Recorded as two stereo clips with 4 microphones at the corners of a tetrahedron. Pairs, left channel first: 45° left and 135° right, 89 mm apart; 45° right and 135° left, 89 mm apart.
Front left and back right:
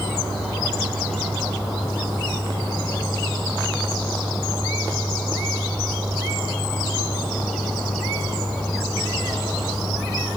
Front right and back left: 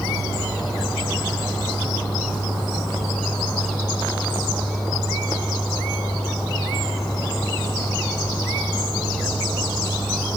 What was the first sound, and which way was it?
Only background noise.